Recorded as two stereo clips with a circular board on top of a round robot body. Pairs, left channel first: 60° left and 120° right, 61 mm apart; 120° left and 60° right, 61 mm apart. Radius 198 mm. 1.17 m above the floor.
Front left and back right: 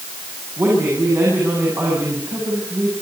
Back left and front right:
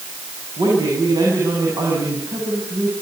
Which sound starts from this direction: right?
A woman speaking, at 0.6 s.